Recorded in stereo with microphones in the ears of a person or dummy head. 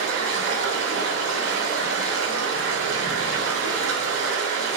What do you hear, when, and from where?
0.0 s running water: 85° right, 1.1 m